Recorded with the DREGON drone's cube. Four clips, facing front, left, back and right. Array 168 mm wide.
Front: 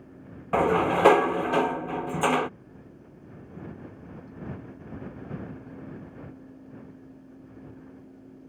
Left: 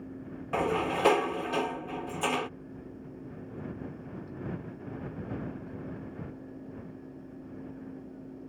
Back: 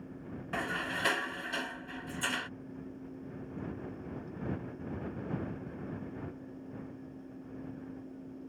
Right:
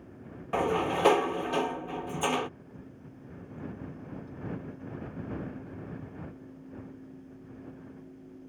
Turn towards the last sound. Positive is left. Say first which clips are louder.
# right 1 dB, front 15 dB
turn(degrees=-5)